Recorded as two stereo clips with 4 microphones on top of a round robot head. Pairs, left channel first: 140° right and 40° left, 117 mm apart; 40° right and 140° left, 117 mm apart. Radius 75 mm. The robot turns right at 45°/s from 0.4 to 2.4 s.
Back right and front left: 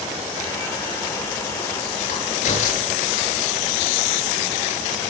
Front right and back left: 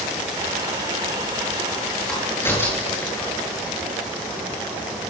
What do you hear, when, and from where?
2.1 s a crack: 125° right, 9 m; by 3.3 s 110° right, 9 m